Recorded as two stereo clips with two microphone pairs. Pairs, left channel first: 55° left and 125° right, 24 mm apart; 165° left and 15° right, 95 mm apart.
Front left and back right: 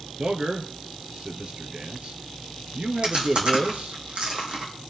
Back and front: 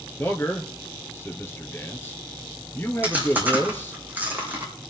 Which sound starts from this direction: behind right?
A man speaking, at 0.2 s.